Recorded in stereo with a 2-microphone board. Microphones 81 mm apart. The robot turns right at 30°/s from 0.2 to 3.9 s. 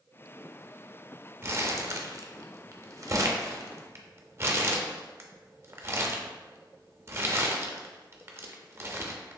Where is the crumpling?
30° right (ahead or behind), 0.5 m; by 9.4 s 35° right (ahead or behind), 0.5 m.